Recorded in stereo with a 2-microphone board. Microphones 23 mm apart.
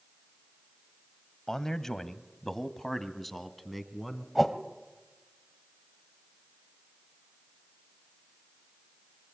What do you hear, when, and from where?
1.5 s a man speaking: 20° left (ahead or behind), 1.3 m; by 4.2 s centre (ahead or behind), 2.5 m
4.3 s a whoosh: centre (ahead or behind), 1.6 m